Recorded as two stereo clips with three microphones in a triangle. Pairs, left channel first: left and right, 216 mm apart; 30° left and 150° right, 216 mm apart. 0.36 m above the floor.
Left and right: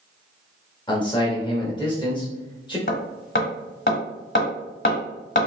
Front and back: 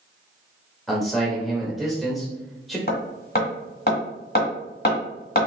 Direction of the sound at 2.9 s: 70° left.